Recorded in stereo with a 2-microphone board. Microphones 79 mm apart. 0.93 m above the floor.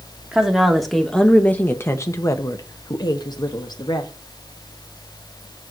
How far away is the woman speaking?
About 1.2 m.